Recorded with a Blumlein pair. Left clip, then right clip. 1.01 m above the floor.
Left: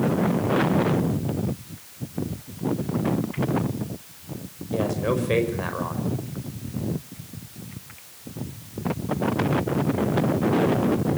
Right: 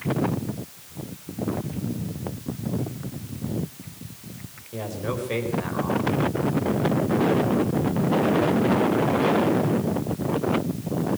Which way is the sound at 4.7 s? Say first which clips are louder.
Left 6 dB; 15° left.